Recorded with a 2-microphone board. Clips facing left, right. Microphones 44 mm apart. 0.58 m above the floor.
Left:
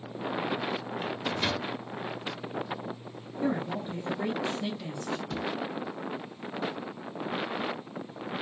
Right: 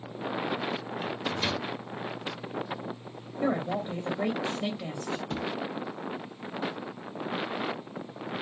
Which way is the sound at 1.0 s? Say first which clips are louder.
Even; 10° left (ahead or behind).